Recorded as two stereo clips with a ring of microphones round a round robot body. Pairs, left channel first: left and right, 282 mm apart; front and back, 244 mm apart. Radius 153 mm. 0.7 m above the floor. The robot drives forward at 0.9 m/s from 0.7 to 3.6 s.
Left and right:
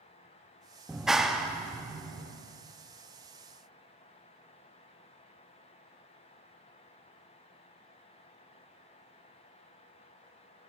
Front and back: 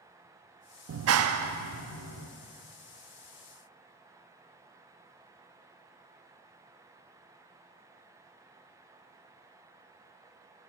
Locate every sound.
0.9 s a clap: 175° right, 0.6 m; by 2.3 s straight behind, 1.8 m